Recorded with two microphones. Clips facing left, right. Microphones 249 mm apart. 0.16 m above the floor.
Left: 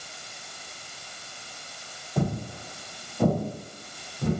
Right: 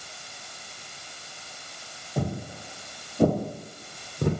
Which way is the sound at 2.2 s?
10° right (ahead or behind).